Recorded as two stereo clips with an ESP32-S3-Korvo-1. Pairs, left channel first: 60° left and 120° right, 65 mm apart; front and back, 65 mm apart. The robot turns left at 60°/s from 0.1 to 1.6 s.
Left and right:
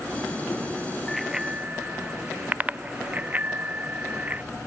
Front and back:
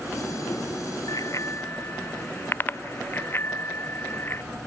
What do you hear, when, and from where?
1.1 s a bicycle bell: 25° right; by 4.4 s 55° right